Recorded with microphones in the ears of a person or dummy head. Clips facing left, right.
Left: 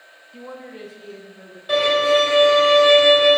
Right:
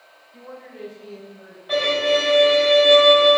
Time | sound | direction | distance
0.3 | a woman speaking | 35° left (ahead or behind) | 0.7 m
1.7 | a violin | 50° left (ahead or behind) | 1.5 m